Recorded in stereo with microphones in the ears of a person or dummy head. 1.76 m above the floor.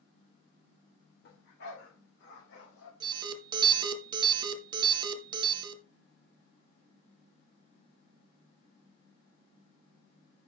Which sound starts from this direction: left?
A dog barking, at 1.2 s.